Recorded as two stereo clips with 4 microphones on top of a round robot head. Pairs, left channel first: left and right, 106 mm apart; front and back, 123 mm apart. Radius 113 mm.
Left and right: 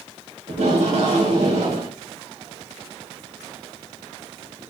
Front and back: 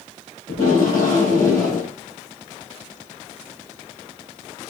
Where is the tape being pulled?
70° right, 3.5 m.